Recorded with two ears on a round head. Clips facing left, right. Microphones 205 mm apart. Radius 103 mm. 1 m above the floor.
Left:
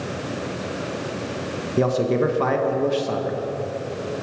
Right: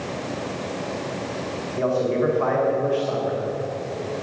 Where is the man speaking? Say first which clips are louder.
Left 2 dB; 55° left (ahead or behind), 1.0 m.